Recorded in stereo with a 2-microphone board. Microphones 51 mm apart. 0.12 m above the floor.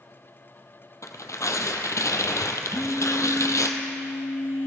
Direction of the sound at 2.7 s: 55° left (ahead or behind).